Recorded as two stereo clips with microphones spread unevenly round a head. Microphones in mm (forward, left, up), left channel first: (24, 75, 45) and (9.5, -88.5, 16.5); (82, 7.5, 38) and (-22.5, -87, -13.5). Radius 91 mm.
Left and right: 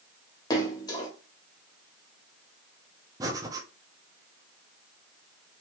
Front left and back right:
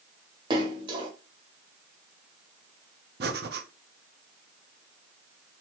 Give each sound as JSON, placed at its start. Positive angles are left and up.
{"t": 0.5, "sound": "a splash", "azimuth_deg": 155, "distance_m": 0.8}
{"t": 3.2, "sound": "breathing", "azimuth_deg": -170, "distance_m": 0.8}